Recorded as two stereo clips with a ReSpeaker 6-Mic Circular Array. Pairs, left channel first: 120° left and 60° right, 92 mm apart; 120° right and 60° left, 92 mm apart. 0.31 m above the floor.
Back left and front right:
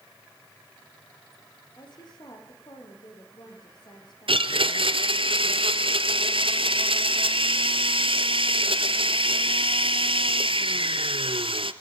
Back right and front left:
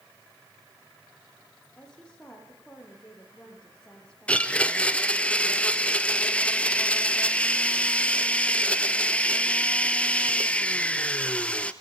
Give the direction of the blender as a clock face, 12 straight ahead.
1 o'clock.